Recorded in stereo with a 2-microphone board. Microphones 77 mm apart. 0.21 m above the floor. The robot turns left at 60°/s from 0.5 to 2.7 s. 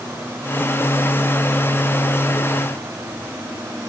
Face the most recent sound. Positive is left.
No sound to turn to.